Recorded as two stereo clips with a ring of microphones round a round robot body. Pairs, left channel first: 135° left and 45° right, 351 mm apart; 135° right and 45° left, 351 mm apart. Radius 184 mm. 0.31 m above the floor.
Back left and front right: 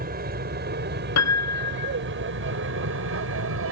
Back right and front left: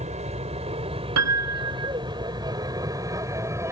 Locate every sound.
0.0 s an aircraft: 10° right; by 3.7 s 35° right
1.2 s a piano: 90° left